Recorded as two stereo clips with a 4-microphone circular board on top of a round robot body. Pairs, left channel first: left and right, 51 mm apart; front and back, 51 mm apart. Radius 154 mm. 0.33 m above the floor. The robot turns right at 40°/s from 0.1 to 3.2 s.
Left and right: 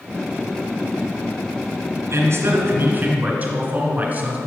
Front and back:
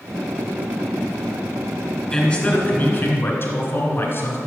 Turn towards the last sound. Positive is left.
turn(degrees=-35)